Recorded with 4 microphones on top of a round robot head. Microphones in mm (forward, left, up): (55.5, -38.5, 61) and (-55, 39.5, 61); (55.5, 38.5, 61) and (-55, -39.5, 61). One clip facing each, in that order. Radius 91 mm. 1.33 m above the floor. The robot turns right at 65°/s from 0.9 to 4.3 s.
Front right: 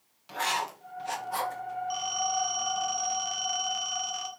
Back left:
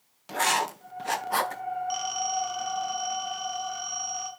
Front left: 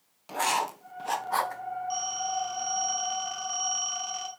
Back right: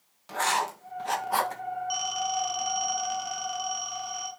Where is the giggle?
No giggle in this recording.